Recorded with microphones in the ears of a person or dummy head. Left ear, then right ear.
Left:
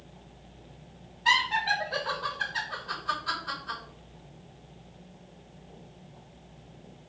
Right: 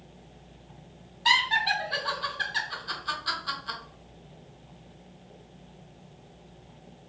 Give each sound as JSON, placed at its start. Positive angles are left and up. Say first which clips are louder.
{"t": 1.2, "sound": "laughter", "louder": "right 1 dB", "side_deg": -30, "distance_m": 1.4}